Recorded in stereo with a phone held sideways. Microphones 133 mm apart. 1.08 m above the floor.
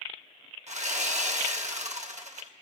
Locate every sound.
0.7 s sawing: 60° right (ahead or behind), 1.1 m